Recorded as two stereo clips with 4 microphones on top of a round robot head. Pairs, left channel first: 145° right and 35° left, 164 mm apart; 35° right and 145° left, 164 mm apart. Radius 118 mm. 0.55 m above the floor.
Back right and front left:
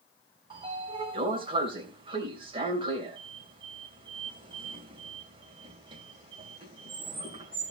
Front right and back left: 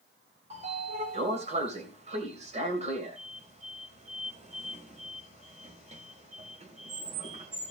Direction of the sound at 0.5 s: 95° left.